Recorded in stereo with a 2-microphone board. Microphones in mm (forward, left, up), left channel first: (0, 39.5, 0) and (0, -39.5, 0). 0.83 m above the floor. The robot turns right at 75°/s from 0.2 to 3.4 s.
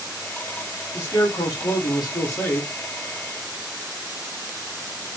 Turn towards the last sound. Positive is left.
turn(degrees=-145)